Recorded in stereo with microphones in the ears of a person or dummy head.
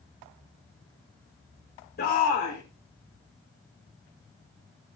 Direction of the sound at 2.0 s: 45° left (ahead or behind).